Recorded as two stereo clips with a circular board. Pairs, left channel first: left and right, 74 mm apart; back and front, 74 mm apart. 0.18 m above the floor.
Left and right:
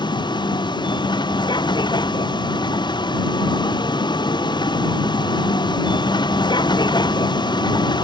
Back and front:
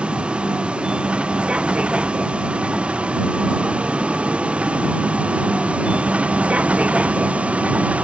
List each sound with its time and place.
0.0 s a vehicle: 75° left